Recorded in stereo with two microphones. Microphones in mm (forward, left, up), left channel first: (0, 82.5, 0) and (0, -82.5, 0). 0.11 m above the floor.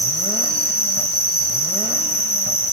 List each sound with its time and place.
0.0 s an insect: 75° left (ahead or behind), 4 m